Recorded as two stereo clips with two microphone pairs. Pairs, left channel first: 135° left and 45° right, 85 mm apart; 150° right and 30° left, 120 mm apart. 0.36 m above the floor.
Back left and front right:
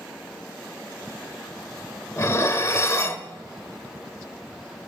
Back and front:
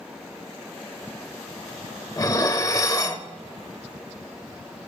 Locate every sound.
2.2 s dishes clattering: 160° left, 0.6 m